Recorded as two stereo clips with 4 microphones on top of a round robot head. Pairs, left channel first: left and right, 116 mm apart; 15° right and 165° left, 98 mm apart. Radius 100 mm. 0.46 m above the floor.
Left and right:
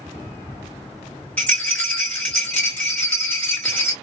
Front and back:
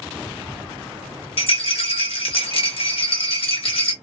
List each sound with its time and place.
1.4 s a rattle: 10° left, 1.1 m